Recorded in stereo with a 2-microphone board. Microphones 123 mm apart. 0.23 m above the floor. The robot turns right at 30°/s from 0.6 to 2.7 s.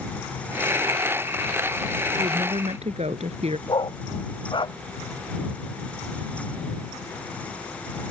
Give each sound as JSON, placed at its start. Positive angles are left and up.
{"t": 2.2, "sound": "a woman speaking", "side_deg": -45}
{"t": 3.7, "sound": "a dog barking", "side_deg": 40}